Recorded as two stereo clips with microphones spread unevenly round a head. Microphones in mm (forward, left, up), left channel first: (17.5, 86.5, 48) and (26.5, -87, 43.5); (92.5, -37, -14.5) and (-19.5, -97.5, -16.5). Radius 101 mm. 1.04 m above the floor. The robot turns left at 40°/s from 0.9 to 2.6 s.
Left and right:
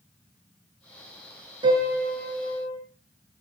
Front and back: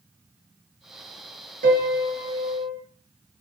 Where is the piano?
155° right, 5.5 m; by 2.8 s 165° left, 5.5 m.